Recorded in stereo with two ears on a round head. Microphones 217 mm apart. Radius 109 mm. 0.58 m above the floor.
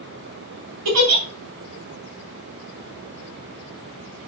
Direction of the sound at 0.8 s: 80° right.